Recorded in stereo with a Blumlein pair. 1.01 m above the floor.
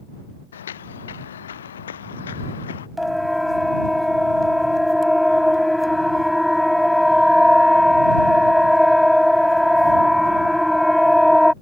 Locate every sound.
0.5 s footsteps: 65° left
3.0 s a siren: straight ahead